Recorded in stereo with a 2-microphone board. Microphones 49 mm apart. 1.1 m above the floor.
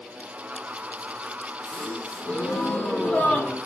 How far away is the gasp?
About 0.9 m.